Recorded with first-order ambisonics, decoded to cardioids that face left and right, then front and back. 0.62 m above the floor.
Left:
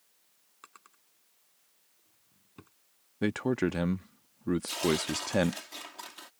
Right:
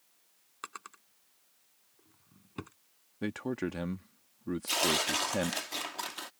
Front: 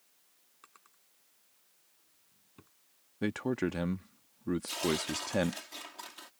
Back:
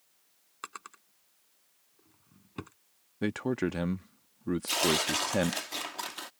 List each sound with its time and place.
0.6 s a drawer: 145° right
3.2 s a man speaking: 110° left
4.7 s tearing paper: 145° right